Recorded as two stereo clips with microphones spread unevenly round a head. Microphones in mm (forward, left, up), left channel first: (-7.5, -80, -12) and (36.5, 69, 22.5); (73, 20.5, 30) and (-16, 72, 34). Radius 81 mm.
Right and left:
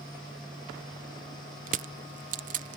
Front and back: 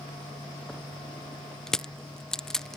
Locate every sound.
1.7 s crushing: 55° left